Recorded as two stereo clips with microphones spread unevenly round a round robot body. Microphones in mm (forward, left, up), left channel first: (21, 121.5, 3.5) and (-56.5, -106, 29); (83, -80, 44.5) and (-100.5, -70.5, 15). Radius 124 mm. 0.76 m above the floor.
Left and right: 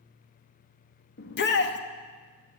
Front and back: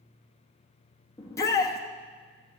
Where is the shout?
75° left, 1.1 m.